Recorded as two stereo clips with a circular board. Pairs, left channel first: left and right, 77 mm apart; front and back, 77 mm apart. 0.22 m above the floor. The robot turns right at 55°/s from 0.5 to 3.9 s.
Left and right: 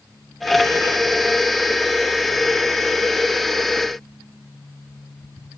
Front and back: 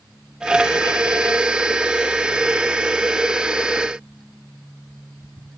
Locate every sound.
Only background noise.